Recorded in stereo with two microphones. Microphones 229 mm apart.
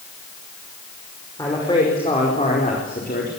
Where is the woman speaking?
15° left (ahead or behind), 5 m; by 3.3 s 45° left (ahead or behind), 4 m.